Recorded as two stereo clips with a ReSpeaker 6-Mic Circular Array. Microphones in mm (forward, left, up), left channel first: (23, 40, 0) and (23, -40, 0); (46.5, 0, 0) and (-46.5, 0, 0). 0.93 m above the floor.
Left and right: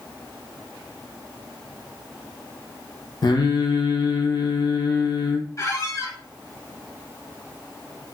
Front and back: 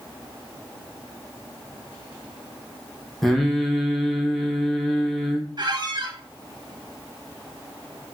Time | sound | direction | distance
3.2 | singing | 85° left | 0.5 m
5.6 | a squeak | 140° left | 0.5 m